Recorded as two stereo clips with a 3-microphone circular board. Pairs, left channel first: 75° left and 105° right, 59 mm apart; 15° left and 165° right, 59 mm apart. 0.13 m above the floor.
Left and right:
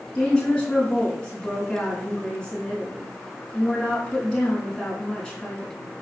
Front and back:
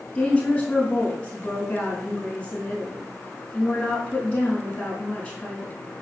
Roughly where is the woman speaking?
Ahead left.